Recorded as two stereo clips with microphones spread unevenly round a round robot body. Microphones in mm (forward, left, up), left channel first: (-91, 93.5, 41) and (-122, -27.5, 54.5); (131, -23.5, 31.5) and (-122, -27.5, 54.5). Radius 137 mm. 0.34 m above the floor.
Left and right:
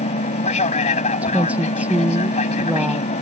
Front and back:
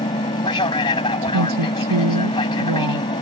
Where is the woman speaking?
175° left.